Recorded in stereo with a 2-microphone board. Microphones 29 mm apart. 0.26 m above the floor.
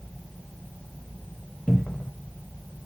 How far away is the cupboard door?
About 0.5 m.